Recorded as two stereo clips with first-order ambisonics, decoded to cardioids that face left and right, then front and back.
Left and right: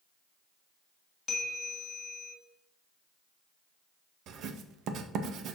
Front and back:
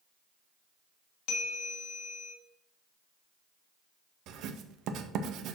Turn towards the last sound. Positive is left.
turn(degrees=-135)